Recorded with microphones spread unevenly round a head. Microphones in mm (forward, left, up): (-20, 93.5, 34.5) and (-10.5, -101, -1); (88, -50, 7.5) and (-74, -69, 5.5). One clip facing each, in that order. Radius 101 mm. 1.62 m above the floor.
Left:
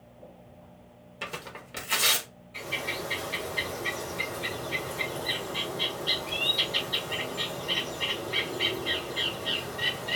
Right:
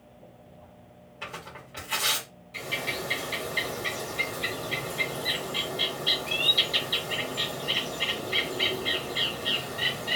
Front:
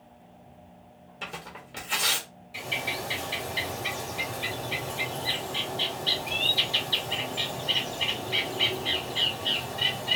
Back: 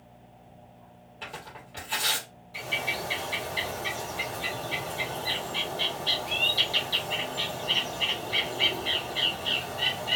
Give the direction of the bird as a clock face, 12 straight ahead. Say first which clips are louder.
Right 1 dB, even; 2 o'clock.